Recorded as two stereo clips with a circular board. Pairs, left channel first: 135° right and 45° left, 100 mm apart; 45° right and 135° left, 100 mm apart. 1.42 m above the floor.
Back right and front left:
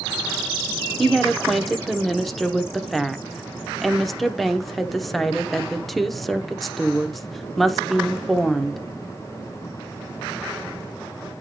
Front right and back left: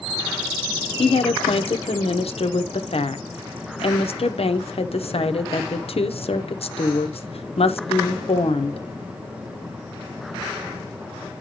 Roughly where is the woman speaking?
Ahead right.